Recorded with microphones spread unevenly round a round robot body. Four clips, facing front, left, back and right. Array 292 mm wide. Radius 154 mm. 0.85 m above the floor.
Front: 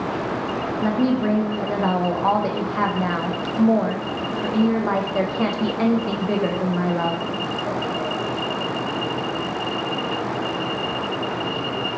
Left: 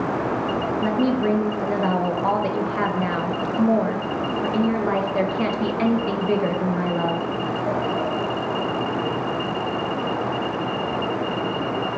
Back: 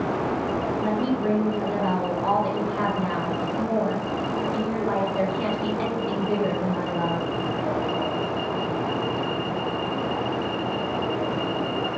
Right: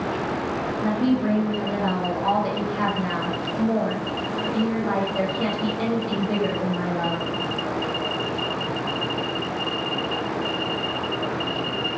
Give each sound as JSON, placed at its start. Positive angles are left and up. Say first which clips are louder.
{"t": 0.8, "sound": "a woman speaking", "louder": "even, front 6 dB", "azimuth_deg": 40, "distance_m": 0.6}